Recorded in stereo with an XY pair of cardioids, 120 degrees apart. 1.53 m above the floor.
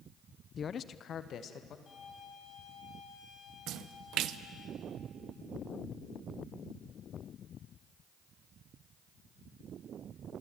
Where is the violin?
35° left, 7.5 m.